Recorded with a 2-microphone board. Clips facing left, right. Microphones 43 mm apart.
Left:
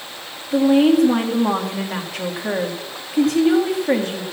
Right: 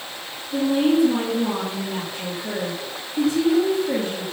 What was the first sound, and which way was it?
A woman speaking, 85° left.